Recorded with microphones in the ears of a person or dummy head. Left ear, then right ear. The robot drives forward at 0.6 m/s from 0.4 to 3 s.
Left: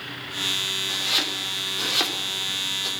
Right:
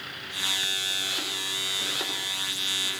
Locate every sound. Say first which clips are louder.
0.9 s chopping: left 4 dB; 60° left (ahead or behind), 3 m; by 2.9 s 85° left, 2.5 m